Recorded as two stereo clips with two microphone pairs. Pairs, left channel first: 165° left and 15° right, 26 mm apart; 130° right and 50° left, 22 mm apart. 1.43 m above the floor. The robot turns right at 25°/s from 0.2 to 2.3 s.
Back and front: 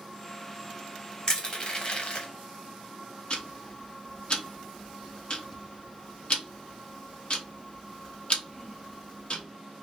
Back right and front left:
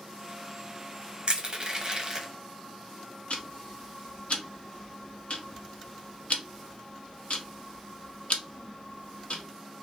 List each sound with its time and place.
1.3 s crushing: 105° left, 0.8 m; by 2.3 s 130° left, 0.8 m
3.3 s ticking: 145° right, 0.6 m